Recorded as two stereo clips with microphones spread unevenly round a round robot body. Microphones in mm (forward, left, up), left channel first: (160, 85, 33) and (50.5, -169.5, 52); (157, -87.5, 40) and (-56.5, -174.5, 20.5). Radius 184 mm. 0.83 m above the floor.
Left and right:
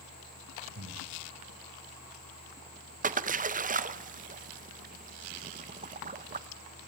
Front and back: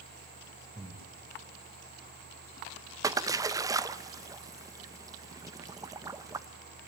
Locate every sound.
0.8 s breathing: 70° right, 5 m
3.0 s a splash: 120° right, 0.8 m